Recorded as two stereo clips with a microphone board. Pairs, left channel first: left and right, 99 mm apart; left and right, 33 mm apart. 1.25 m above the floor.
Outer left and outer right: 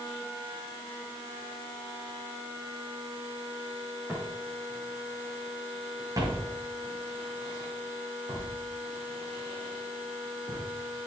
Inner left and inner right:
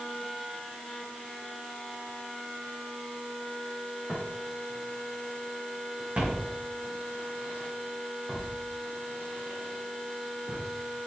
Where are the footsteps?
10° right (ahead or behind), 4.5 m; by 10.6 s 75° right (ahead or behind), 5.5 m.